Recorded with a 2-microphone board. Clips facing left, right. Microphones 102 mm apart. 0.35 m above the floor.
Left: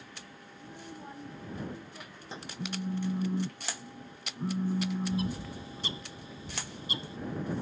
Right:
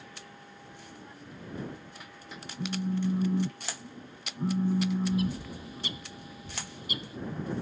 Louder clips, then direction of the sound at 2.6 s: Right 4 dB; 5° right (ahead or behind).